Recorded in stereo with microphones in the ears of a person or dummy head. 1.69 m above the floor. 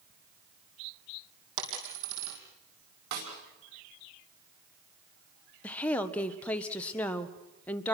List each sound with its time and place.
1.6 s a dropped coin: 65° right (ahead or behind), 4 m
3.1 s a snare drum: 65° right (ahead or behind), 5 m
5.6 s a woman speaking: 10° left (ahead or behind), 1.3 m